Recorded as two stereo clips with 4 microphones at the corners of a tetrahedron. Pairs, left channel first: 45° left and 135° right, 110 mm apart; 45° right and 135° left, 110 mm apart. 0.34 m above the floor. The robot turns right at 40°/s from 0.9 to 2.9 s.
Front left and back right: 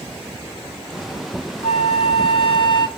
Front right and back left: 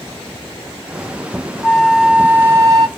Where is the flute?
35° left, 0.6 m; by 2.9 s 85° left, 0.6 m.